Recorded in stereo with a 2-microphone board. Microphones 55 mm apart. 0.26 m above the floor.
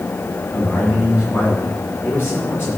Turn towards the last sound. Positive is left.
turn(degrees=35)  # may be behind; listen again after turning